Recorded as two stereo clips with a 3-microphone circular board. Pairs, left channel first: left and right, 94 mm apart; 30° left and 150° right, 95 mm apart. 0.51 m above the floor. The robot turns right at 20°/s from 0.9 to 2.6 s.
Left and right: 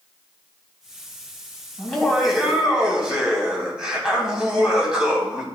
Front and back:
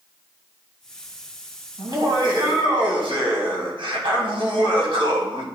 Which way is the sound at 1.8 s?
170° left.